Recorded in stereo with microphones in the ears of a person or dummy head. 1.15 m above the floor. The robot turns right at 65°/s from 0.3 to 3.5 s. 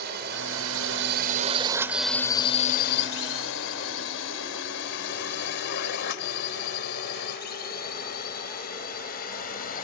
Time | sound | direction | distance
0.0 | a drone | 50° right (ahead or behind) | ?